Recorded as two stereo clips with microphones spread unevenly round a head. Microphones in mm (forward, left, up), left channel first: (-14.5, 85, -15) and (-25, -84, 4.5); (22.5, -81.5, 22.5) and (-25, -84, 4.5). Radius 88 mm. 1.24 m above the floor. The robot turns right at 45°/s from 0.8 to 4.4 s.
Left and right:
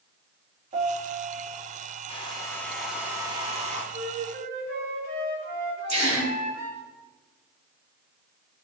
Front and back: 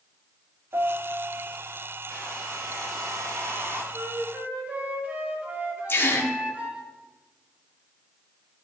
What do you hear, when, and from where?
0.7 s a piano: 150° right, 1.7 m; by 1.6 s 115° right, 1.7 m
2.1 s a hair dryer: 145° left, 2.5 m; by 3.8 s 140° right, 2.5 m
3.9 s a flute: 140° right, 4 m; by 6.8 s 120° right, 4 m
5.9 s a gasp: 40° right, 4 m